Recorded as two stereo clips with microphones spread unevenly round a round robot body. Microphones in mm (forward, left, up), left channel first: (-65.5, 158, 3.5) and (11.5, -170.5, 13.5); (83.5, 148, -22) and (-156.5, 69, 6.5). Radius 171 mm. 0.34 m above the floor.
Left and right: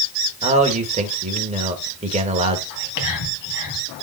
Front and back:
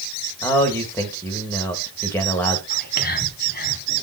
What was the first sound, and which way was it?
A man speaking, 30° right.